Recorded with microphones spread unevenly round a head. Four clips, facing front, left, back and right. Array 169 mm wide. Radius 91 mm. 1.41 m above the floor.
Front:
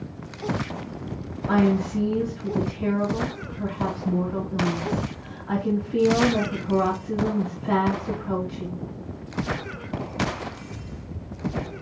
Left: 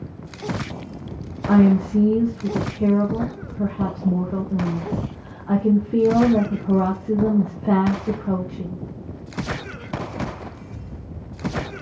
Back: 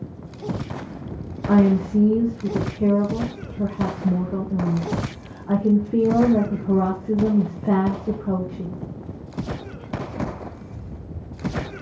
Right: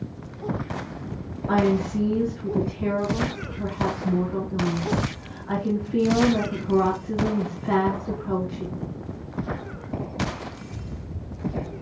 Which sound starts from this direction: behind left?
A woman speaking, at 1.5 s.